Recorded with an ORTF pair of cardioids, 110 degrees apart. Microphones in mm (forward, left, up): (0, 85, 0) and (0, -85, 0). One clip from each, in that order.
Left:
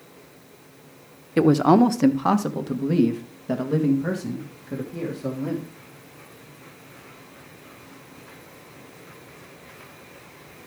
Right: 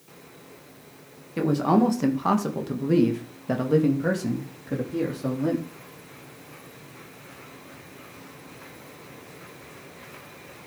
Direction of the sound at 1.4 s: 50° left.